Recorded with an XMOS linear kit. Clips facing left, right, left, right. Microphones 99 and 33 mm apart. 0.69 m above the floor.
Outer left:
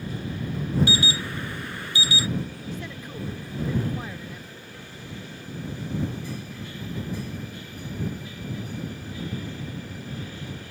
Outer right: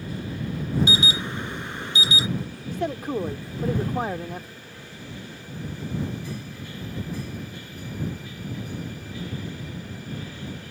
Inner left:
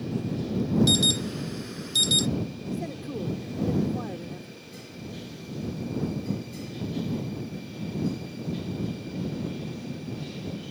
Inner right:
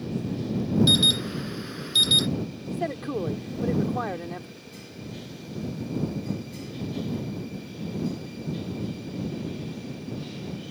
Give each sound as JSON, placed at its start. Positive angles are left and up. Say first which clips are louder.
{"t": 0.9, "sound": "an alarm", "louder": "outer right 1 dB, inner right 3 dB", "side_deg": -20}
{"t": 2.7, "sound": "a man speaking", "louder": "outer right 9 dB, inner right 8 dB", "side_deg": -65}